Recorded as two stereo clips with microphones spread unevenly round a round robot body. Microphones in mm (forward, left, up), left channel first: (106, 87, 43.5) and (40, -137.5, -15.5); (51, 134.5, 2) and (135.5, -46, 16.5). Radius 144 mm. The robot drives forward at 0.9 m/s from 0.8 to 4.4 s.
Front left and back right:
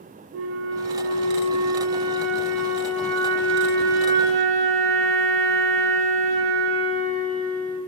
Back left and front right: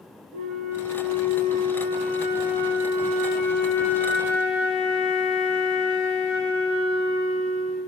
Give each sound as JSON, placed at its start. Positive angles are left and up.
{"t": 0.3, "sound": "a flute", "azimuth_deg": -80, "distance_m": 1.1}